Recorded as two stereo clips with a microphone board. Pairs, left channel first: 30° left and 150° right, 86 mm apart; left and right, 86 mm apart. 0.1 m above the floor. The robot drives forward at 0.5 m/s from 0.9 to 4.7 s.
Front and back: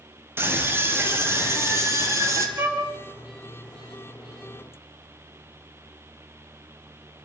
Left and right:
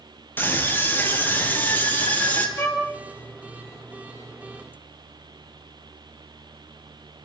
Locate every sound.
0.4 s a scream: 155° left, 3 m; by 2.5 s 160° left, 4 m
2.6 s a violin: 150° left, 2.5 m